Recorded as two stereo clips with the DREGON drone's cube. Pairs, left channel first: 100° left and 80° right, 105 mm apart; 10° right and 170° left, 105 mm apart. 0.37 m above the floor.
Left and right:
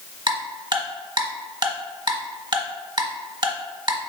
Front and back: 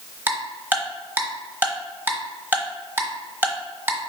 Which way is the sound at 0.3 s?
120° right.